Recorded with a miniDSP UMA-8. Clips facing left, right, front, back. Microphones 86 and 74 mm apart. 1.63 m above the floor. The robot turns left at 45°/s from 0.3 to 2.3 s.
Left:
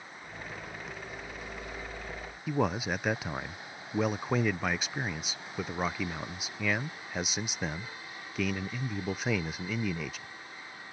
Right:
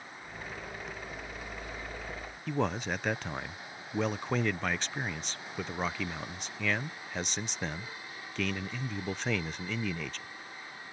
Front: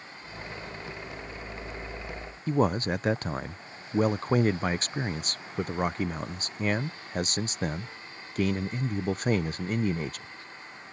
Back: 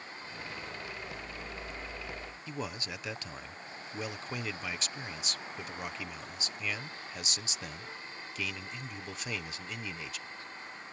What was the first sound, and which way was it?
A man speaking, 10° left.